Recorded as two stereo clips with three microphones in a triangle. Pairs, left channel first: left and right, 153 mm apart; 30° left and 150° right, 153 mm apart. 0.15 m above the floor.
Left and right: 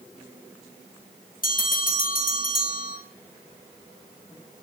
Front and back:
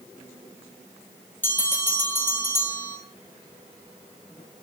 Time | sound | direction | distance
1.4 | a bell | 105° left | 1.9 m